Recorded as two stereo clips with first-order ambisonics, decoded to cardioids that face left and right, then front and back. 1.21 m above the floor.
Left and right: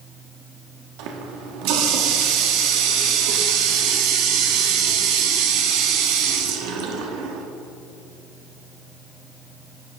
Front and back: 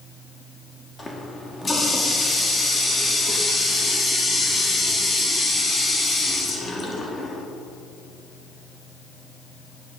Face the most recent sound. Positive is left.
turn(degrees=-80)